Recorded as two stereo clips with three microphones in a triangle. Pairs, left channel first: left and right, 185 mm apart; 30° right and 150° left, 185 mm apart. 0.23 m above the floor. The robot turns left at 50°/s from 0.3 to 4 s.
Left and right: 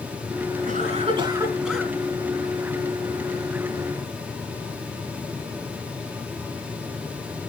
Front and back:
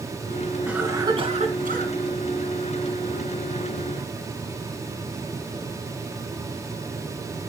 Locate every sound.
0.7 s a cough: 125° right, 3 m; by 1.9 s 170° left, 3 m